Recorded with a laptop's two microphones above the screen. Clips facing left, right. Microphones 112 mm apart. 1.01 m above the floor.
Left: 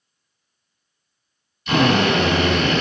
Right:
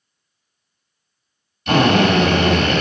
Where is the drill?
55° right (ahead or behind), 1.8 m.